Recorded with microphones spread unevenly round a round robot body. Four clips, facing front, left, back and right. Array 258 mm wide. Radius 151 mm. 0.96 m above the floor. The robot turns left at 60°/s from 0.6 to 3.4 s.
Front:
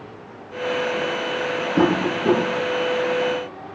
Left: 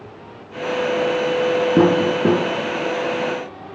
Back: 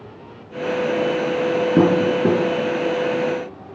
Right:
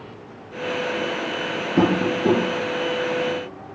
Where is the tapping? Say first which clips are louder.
Left 2 dB, back 3 dB; 140° left, 6 m; by 2.4 s 100° left, 6 m.